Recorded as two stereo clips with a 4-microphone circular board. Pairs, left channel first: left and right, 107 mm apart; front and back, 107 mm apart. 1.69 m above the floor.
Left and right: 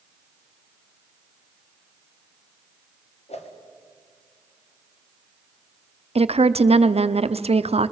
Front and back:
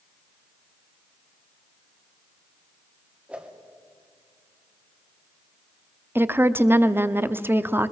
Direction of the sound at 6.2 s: 110° right.